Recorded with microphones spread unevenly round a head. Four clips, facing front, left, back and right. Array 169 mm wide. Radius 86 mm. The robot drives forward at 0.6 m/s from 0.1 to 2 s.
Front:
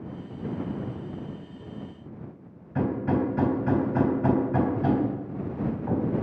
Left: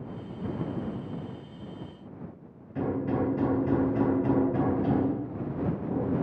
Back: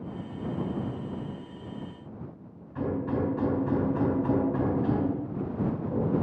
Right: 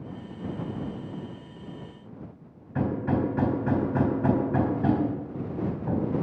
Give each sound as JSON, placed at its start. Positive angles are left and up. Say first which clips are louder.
{"t": 2.8, "sound": "hammering", "louder": "right 2 dB, front 3 dB", "azimuth_deg": -45, "distance_m": 3.5}